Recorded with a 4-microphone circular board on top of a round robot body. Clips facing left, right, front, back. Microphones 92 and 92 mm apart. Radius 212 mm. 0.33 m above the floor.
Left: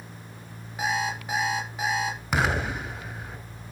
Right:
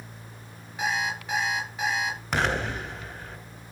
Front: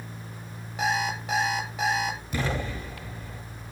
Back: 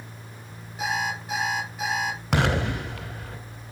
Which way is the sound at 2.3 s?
175° left.